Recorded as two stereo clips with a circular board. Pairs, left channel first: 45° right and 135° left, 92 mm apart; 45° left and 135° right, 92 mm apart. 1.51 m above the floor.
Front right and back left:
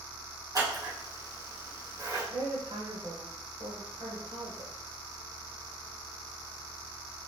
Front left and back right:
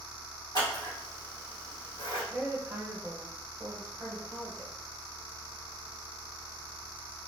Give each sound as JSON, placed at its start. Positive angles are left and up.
{"t": 0.6, "sound": "scissors", "azimuth_deg": 90, "distance_m": 2.5}
{"t": 2.3, "sound": "a woman speaking", "azimuth_deg": 145, "distance_m": 1.3}